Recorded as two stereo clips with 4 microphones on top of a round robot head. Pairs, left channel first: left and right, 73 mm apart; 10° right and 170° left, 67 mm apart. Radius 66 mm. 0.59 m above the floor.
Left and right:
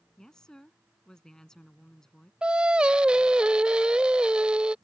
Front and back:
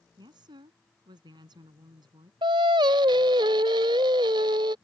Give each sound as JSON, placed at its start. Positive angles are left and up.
{"t": 0.2, "sound": "a woman speaking", "azimuth_deg": 170}
{"t": 2.4, "sound": "singing", "azimuth_deg": -165}